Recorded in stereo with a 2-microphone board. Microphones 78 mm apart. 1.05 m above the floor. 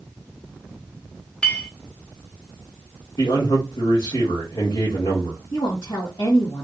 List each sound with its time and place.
1.4 s a clink: 15° left (ahead or behind), 0.8 m
3.2 s a man speaking: 65° left (ahead or behind), 1.6 m
5.5 s a woman speaking: 65° left (ahead or behind), 1.3 m